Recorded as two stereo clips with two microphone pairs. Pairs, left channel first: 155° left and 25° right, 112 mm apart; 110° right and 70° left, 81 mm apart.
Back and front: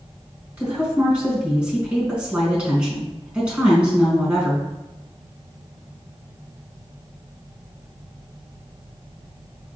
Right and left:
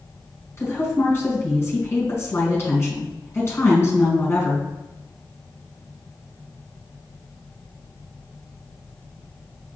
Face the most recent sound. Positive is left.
turn(degrees=-95)